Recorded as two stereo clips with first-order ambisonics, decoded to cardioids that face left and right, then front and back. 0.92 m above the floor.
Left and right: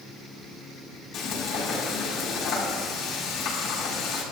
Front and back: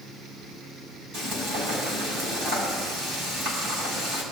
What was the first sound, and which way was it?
Frying, 135° left.